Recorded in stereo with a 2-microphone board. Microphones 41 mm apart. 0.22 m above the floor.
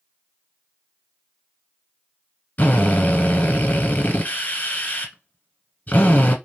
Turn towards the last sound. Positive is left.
turn(degrees=40)  # may be behind; listen again after turning